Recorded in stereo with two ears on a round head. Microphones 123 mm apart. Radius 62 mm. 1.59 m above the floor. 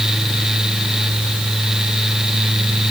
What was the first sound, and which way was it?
Only background noise.